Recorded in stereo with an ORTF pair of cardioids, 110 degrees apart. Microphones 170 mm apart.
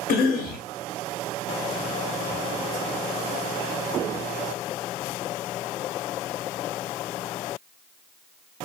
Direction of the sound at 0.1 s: 65° left.